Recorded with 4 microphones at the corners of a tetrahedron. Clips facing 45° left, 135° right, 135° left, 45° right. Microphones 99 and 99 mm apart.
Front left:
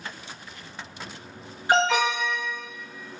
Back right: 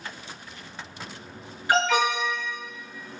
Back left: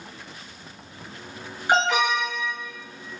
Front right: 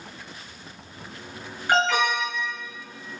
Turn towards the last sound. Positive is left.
turn(degrees=85)